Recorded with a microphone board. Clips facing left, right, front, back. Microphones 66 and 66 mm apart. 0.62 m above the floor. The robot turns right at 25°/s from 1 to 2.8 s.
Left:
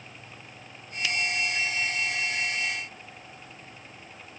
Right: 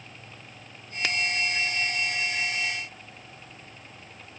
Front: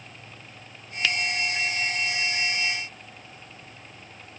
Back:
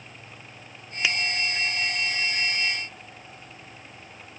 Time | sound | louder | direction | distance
1.0 | a finger snap | right 1 dB, even | 115° right | ?